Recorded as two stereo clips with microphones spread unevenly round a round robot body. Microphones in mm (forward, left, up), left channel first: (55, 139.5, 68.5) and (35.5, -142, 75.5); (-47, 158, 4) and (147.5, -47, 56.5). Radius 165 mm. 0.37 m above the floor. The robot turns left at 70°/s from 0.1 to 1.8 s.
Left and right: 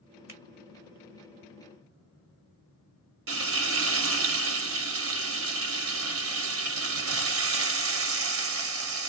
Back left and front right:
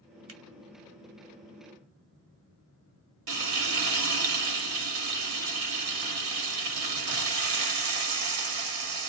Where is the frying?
55° right, 1.4 m.